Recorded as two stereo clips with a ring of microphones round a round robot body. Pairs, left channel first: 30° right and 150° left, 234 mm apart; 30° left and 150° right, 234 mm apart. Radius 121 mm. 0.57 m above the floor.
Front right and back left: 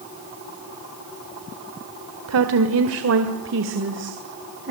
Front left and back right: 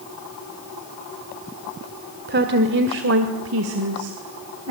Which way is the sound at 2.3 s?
165° left.